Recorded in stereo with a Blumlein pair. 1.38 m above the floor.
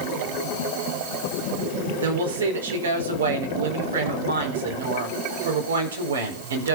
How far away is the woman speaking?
About 4.5 m.